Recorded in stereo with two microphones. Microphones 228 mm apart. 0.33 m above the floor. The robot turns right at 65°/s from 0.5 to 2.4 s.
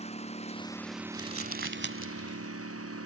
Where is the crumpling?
75° right (ahead or behind); by 3.1 s 15° right (ahead or behind).